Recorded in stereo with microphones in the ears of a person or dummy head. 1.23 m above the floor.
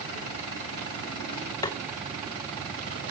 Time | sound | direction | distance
1.6 | tapping | 15° left (ahead or behind) | 0.6 m